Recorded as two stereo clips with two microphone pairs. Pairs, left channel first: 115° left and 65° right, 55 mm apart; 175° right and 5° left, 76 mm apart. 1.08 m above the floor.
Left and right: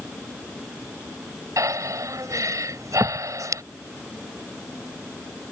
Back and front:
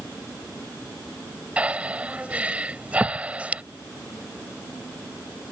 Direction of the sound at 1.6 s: 65° right.